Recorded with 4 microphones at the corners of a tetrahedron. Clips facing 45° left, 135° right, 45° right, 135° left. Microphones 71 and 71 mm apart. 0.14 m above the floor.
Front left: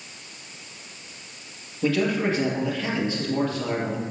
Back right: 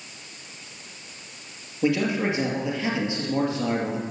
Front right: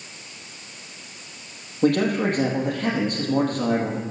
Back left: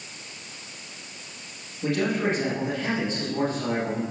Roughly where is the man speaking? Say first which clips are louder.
Even, front right 5 dB; ahead right.